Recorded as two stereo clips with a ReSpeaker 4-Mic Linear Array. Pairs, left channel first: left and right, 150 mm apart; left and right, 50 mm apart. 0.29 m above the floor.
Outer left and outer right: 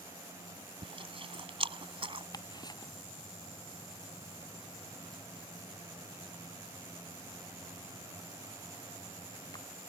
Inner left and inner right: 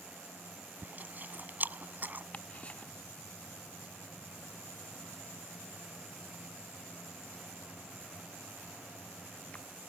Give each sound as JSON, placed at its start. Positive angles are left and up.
{"t": 0.8, "sound": "chewing", "side_deg": -35}
{"t": 2.3, "sound": "ticking", "side_deg": 25}